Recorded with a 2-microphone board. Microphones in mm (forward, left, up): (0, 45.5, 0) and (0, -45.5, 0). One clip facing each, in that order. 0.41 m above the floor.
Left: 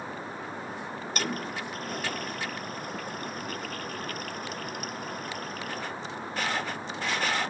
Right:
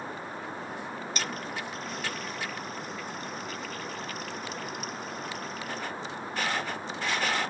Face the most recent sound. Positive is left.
turn(degrees=50)  # may be behind; listen again after turning